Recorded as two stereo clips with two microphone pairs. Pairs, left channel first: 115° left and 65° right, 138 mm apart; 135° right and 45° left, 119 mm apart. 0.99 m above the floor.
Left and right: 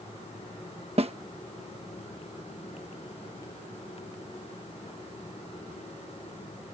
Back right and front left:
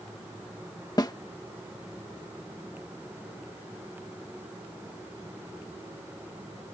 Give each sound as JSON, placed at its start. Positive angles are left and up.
{"t": 1.0, "sound": "a snare drum", "azimuth_deg": -85}